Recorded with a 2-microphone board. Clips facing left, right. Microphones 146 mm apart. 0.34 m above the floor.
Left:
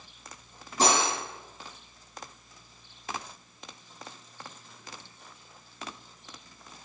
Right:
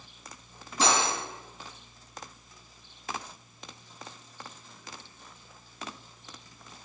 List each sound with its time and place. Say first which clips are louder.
0.8 s cutlery clinking: left 1 dB; 45° left (ahead or behind), 2.5 m